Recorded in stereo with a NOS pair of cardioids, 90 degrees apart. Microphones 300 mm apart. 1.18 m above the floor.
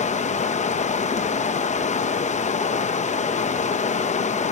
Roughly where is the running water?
Ahead left.